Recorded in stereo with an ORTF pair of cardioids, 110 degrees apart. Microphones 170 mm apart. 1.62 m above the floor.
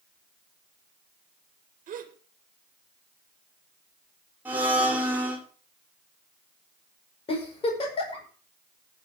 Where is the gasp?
50° right, 1.9 m.